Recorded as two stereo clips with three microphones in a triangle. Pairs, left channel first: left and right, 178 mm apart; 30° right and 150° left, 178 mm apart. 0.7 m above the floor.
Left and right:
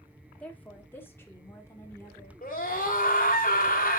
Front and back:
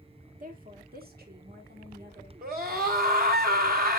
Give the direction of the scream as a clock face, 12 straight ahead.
8 o'clock.